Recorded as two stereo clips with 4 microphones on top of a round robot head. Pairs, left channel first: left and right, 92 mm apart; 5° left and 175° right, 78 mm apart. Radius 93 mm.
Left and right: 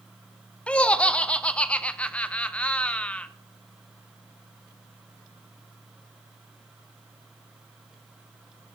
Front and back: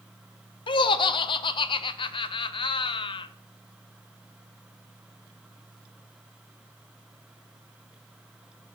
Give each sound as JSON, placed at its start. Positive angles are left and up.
{"t": 0.7, "sound": "laughter", "azimuth_deg": 15, "distance_m": 0.5}